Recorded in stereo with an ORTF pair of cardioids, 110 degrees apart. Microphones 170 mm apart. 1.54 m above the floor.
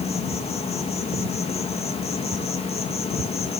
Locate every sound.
0.0 s an insect: 35° left, 1.9 m